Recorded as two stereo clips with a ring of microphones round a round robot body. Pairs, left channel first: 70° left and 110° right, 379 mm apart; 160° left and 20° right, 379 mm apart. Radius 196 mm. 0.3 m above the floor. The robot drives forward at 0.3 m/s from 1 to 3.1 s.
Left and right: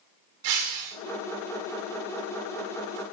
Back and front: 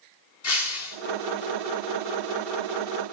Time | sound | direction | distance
0.4 | breaking glass | 150° right | 1.9 m